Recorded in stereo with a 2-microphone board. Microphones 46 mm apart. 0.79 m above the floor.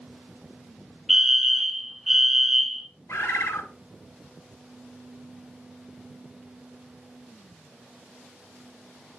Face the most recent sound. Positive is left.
turn(degrees=85)